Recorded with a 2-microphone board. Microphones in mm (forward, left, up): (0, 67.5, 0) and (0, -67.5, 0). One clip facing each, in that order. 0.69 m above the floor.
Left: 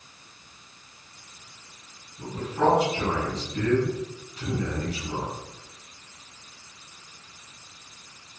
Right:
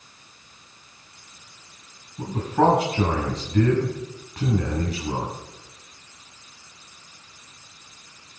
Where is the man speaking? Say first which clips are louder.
Right 4 dB; 80° right, 7 m.